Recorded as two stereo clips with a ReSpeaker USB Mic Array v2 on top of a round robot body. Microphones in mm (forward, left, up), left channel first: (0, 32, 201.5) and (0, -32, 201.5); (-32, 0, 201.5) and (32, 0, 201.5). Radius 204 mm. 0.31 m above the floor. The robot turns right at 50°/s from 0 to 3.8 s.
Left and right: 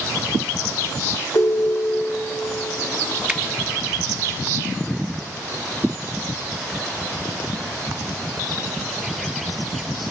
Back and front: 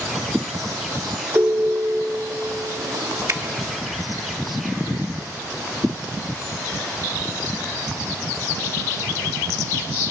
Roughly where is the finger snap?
Ahead.